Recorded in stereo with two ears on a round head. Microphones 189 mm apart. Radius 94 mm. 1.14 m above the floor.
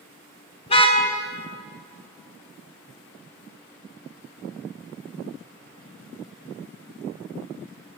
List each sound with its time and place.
0.7 s a car horn: 25° left (ahead or behind), 4.5 m